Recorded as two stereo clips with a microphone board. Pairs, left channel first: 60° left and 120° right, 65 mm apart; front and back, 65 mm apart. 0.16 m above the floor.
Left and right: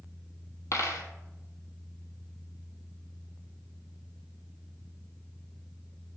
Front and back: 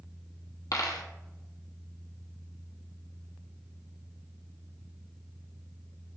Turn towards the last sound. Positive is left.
turn(degrees=20)